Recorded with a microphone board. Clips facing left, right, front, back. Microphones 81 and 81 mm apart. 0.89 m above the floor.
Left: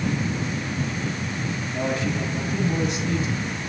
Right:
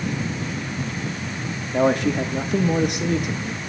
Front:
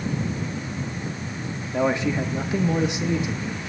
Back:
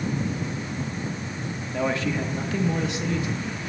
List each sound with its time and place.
1.7 s a man speaking: 70° right, 1.0 m